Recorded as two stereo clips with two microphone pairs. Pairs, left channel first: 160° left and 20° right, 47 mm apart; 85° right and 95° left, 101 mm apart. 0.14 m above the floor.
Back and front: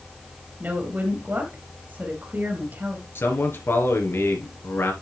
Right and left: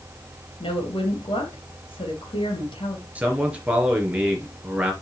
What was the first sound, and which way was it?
A woman speaking, 60° right.